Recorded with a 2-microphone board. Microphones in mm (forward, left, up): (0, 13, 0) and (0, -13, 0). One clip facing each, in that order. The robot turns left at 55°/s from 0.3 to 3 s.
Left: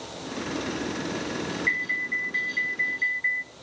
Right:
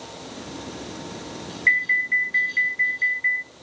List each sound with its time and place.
1.7 s an alarm: 105° right, 0.8 m; by 3.5 s straight behind, 0.8 m